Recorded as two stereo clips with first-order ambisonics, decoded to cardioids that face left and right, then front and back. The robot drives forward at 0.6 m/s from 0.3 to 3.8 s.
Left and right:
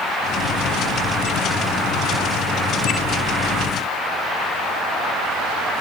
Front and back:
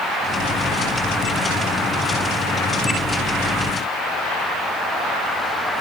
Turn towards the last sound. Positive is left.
No sound to turn to.